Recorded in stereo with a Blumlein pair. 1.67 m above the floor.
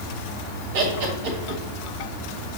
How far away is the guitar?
I don't hear a guitar.